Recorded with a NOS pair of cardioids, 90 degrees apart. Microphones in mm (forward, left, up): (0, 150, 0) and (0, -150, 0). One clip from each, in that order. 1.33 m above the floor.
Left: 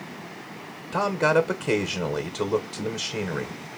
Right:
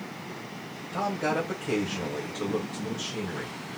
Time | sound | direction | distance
0.9 | a man speaking | 60° left | 1.4 m